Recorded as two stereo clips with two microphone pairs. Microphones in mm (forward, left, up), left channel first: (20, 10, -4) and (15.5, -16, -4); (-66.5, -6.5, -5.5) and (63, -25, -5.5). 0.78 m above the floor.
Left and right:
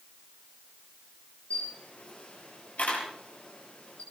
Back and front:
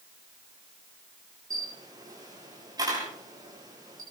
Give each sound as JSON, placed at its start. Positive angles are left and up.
{"t": 1.5, "sound": "a camera shutter", "azimuth_deg": 50, "distance_m": 7.0}